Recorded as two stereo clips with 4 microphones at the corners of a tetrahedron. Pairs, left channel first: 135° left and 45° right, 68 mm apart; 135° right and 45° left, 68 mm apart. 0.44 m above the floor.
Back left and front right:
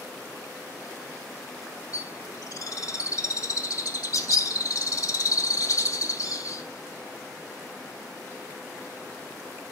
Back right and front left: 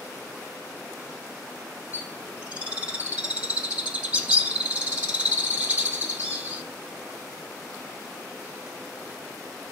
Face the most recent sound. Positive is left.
turn(degrees=115)